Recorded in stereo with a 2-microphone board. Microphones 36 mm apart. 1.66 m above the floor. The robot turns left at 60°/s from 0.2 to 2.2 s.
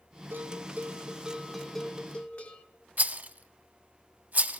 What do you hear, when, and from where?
0.3 s a bell: 105° right, 0.8 m; by 2.6 s 140° left, 0.8 m
3.0 s a rattle: 45° right (ahead or behind), 0.6 m